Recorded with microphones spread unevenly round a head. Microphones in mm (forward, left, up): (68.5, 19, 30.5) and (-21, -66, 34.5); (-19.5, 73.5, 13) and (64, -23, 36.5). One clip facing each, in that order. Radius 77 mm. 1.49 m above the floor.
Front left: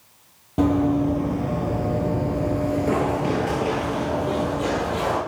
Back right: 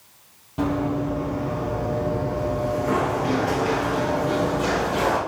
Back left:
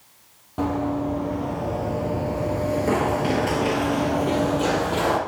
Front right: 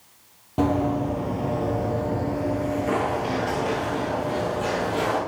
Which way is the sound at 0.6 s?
10° left.